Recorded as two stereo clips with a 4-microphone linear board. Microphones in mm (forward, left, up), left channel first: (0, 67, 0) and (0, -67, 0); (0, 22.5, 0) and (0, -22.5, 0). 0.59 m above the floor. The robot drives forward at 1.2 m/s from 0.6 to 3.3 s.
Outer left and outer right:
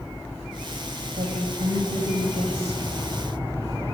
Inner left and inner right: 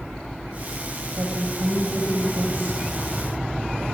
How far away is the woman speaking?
About 2.5 m.